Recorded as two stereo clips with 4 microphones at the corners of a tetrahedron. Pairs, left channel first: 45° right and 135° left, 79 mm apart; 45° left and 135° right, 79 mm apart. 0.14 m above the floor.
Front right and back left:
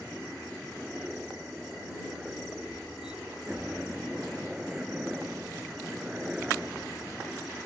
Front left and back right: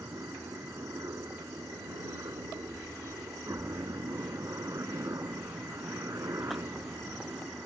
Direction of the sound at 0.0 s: 155° right.